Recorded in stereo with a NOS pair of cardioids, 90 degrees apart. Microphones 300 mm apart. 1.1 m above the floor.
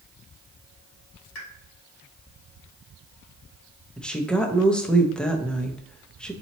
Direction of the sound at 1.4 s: 45° left.